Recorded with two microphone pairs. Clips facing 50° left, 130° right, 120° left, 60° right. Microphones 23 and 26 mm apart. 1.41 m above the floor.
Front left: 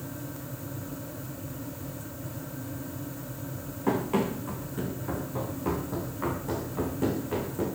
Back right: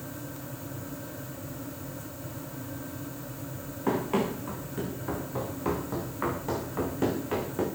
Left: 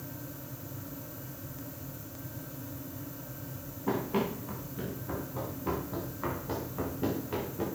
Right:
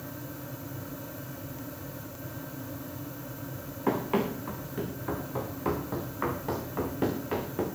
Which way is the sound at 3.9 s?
50° right.